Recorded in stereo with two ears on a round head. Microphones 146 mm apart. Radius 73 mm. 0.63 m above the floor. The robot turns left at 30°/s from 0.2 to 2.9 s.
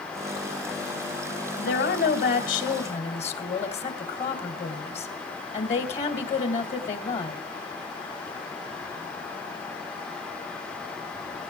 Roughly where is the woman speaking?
Left.